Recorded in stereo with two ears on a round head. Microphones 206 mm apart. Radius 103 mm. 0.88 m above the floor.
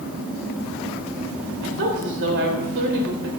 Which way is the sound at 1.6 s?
55° right (ahead or behind).